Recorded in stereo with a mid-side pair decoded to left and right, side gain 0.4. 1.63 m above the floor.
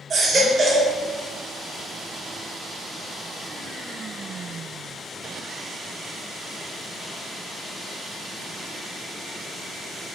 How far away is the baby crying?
About 1.6 m.